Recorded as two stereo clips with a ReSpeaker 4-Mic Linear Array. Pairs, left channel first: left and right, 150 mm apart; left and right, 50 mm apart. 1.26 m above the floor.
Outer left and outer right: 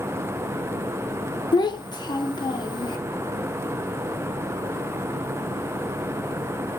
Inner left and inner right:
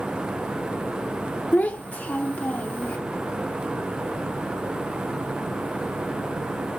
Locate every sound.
1.5 s a child speaking: 30° left (ahead or behind), 0.5 m